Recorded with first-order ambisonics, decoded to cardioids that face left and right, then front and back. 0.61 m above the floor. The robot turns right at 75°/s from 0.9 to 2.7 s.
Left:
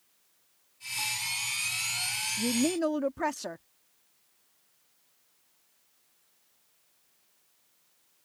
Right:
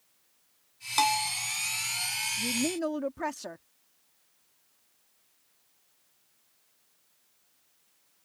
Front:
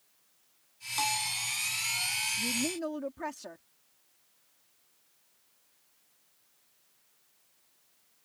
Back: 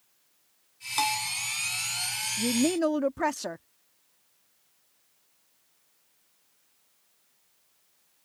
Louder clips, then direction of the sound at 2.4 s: Left 2 dB, back 6 dB; 140° left.